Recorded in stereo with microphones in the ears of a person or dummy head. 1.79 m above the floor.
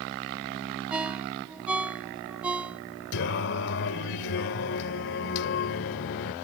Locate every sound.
0.9 s a ringtone: 10° right (ahead or behind)
3.1 s singing: 55° left (ahead or behind)